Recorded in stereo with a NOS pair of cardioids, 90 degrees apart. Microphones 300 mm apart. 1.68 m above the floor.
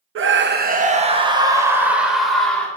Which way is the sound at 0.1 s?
45° right.